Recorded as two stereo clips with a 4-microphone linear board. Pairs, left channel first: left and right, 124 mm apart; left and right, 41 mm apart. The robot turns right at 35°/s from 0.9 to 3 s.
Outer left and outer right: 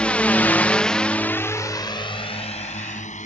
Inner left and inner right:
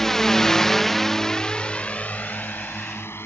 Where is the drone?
10° left (ahead or behind); by 3.3 s 70° left (ahead or behind).